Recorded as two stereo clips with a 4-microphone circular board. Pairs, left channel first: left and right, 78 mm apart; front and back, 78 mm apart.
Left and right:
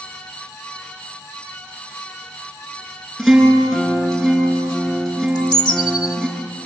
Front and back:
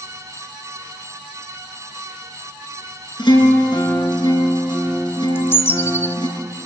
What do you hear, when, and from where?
3.2 s a guitar: straight ahead, 7 m
5.3 s a bird: 60° left, 1.0 m